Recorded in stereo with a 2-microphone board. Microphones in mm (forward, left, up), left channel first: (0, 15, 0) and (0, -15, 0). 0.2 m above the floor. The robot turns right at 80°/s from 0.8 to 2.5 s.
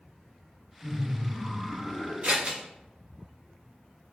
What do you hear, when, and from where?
0.8 s laughter: 120° right, 1.8 m; by 2.1 s 15° right, 1.8 m
2.2 s scissors: 50° right (ahead or behind), 0.9 m; by 2.6 s 35° right (ahead or behind), 0.9 m